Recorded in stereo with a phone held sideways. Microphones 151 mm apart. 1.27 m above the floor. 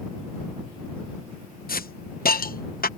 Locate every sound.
1.7 s a hiss: 80° left